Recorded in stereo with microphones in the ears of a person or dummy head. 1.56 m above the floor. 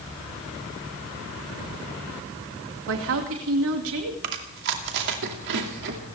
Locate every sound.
2.9 s a woman speaking: 70° right (ahead or behind), 2 m
4.2 s chewing: 55° right (ahead or behind), 2 m